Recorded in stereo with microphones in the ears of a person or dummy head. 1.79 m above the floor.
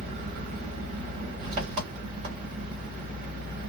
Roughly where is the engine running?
Right.